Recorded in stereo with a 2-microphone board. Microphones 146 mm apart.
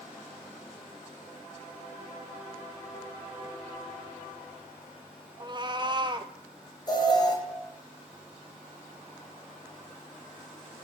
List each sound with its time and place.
5.4 s a cat meowing: 30° right (ahead or behind), 0.8 m
6.9 s an alarm: 30° left (ahead or behind), 4 m